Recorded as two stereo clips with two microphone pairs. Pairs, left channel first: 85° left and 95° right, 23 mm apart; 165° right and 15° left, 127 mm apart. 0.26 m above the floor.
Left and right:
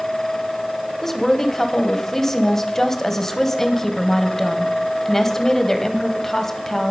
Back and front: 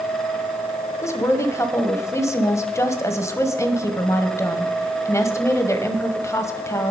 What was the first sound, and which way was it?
A woman speaking, 145° left.